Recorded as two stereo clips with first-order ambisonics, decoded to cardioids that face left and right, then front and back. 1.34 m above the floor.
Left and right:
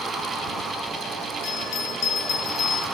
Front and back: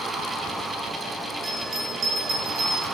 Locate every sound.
1.4 s a bell: 125° left, 4 m